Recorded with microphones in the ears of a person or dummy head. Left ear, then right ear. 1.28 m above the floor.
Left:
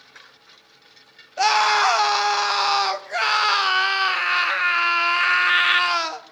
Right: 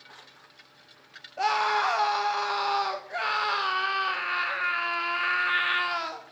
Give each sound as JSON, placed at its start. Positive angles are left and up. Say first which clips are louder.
{"t": 1.4, "sound": "a scream", "louder": "left 7 dB", "side_deg": 20, "distance_m": 0.5}